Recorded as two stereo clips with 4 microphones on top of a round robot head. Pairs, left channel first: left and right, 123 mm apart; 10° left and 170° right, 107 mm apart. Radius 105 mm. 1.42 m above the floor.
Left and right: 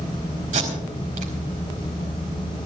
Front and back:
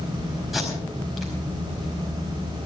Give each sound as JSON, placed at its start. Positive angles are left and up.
{"t": 0.5, "sound": "tape being pulled", "azimuth_deg": -80, "distance_m": 4.5}